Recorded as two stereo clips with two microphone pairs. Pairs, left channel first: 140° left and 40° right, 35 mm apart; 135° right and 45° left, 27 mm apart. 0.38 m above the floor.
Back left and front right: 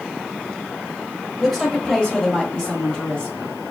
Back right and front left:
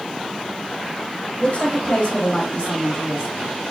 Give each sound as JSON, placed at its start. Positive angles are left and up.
{"t": 1.4, "sound": "a woman speaking", "azimuth_deg": -135, "distance_m": 1.3}